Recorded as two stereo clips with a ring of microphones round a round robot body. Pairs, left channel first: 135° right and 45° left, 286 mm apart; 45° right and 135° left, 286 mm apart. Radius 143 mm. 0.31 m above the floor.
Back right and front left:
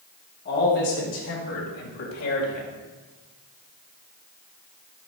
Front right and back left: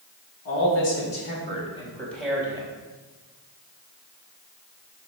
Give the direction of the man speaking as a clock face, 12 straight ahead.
3 o'clock.